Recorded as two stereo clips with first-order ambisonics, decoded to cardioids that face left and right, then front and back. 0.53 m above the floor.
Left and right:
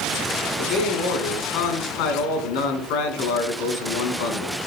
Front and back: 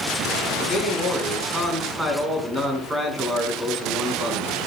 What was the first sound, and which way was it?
A man speaking, 100° left.